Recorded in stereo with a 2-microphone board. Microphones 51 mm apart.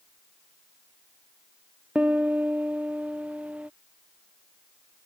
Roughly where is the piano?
Right.